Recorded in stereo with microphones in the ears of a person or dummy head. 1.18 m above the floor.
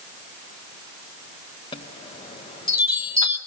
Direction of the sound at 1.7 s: 30° left (ahead or behind).